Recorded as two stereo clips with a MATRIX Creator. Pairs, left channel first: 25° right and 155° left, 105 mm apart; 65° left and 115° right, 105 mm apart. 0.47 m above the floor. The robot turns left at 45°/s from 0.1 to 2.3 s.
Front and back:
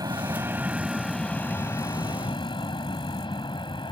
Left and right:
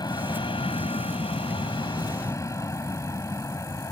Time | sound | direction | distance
0.0 | an aircraft | 110° left | ?